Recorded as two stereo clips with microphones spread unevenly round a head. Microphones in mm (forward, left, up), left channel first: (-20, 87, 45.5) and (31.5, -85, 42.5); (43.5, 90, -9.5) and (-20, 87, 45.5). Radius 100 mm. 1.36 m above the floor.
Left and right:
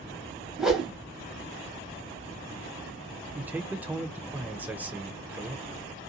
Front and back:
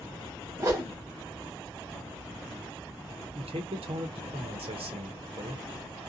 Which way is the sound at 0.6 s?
160° right.